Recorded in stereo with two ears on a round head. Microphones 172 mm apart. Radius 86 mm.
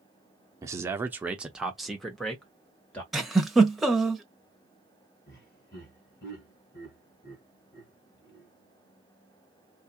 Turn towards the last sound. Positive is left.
turn(degrees=55)  # may be behind; listen again after turning